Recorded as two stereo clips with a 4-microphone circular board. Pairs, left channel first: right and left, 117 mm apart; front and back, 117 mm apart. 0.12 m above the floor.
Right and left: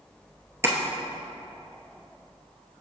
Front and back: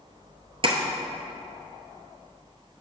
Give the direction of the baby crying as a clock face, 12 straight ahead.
I don't hear a baby crying.